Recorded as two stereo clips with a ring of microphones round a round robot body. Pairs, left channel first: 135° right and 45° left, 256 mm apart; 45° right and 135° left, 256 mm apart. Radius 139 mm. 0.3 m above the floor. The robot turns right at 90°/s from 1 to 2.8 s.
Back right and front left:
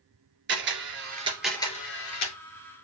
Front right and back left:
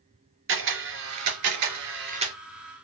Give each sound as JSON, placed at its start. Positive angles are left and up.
{"t": 0.5, "sound": "a camera shutter", "azimuth_deg": 95, "distance_m": 3.0}